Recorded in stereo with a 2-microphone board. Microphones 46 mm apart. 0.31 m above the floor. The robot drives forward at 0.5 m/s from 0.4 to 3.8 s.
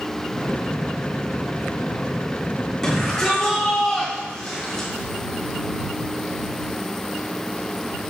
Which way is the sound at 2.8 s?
10° left (ahead or behind).